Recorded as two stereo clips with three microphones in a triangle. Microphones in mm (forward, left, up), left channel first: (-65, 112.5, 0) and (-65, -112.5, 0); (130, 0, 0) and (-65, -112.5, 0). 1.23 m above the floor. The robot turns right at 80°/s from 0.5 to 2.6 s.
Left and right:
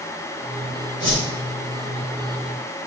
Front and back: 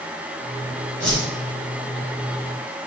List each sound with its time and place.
1.0 s a whoosh: 120° right, 4.5 m; by 1.2 s 105° right, 4.5 m